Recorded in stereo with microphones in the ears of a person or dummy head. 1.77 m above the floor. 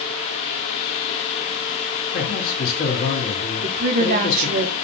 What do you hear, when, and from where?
2.1 s a man speaking: 60° left (ahead or behind), 1.4 m
3.6 s a woman speaking: 50° right (ahead or behind), 0.7 m